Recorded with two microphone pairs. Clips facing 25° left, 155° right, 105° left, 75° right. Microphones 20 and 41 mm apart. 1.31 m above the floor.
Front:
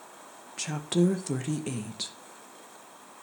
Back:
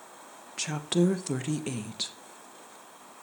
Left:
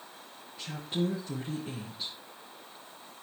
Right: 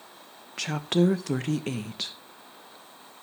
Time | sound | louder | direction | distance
0.6 | a woman speaking | even, right 9 dB | 75° right | 1.0 m